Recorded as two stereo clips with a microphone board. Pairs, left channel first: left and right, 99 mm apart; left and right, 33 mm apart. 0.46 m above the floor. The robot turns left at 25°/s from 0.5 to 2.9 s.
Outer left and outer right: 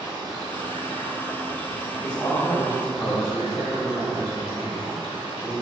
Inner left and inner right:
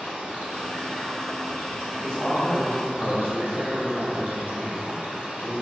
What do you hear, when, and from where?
0.0 s running water: 50° right, 1.0 m; by 5.6 s 110° right, 1.0 m
2.0 s a man speaking: 15° left (ahead or behind), 0.8 m; by 5.5 s 20° left (ahead or behind), 0.8 m